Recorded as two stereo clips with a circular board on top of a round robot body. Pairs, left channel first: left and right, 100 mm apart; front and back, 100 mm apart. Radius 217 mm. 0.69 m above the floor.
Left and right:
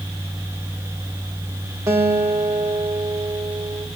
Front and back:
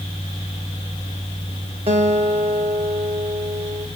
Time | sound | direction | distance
1.9 | a guitar | 155° right | 1.0 m